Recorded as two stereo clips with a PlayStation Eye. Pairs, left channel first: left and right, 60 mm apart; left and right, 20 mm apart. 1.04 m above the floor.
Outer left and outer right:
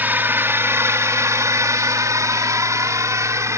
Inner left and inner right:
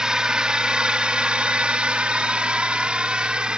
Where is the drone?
35° right (ahead or behind); by 3.6 s 55° right (ahead or behind).